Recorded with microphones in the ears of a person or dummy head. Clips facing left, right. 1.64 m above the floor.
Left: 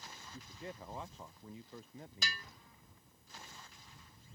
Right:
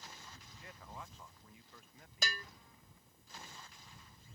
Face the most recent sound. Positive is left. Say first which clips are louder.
# right 4 dB
turn(degrees=-45)  # may be behind; listen again after turning